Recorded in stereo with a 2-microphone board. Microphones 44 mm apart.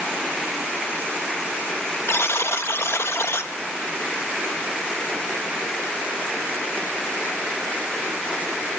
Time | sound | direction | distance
2.1 | a buzzer | 75° left (ahead or behind) | 0.7 m